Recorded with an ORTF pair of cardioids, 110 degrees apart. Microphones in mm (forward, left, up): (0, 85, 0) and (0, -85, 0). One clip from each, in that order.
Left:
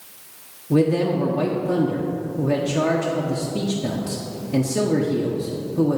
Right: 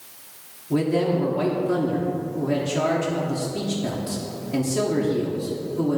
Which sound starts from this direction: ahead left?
A man speaking, at 0.7 s.